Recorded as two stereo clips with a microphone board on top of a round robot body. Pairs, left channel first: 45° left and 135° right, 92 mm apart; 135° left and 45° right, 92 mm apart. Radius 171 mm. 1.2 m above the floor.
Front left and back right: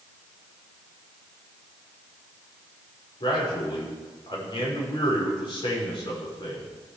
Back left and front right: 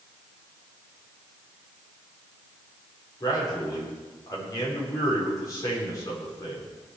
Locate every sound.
3.2 s a man speaking: 85° left, 5 m